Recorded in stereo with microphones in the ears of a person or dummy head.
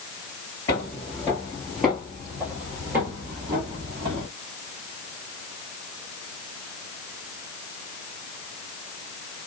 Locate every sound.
0.7 s footsteps: 20° left (ahead or behind), 1.8 m; by 4.3 s 25° right (ahead or behind), 2.5 m